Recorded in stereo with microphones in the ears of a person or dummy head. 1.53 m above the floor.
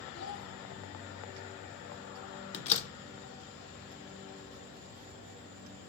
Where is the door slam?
40° left (ahead or behind), 0.8 m.